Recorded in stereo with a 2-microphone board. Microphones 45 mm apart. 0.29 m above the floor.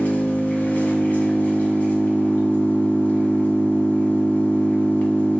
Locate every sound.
0.0 s an engine running: 40° left (ahead or behind), 1.5 m